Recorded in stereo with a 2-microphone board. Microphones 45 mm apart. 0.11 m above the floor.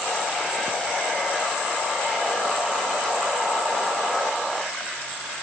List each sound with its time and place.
Only background noise.